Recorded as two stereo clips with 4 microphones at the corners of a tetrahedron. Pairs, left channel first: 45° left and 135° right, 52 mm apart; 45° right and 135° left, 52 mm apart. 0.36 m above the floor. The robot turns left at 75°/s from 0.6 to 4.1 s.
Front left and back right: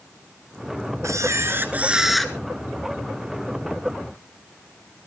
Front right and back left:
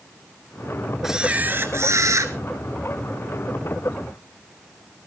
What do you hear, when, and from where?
1.0 s a camera shutter: 140° right, 1.6 m; by 2.3 s 125° left, 1.6 m